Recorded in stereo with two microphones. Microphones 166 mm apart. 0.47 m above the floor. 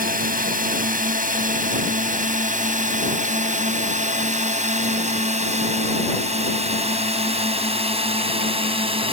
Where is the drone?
60° right (ahead or behind); by 9.1 s 35° right (ahead or behind).